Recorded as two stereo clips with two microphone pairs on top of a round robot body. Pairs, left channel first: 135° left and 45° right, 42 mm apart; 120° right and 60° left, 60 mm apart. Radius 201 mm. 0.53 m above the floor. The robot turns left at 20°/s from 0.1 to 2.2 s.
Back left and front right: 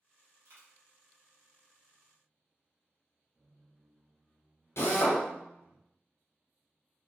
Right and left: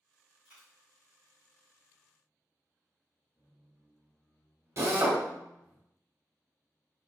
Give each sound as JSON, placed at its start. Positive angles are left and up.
{"t": 0.5, "sound": "a dropped coin", "azimuth_deg": -10, "distance_m": 1.2}
{"t": 3.4, "sound": "a squeak", "azimuth_deg": 0, "distance_m": 0.8}
{"t": 4.8, "sound": "a drill", "azimuth_deg": 115, "distance_m": 0.9}